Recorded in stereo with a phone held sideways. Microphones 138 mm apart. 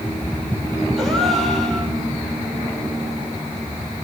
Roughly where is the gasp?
Centre.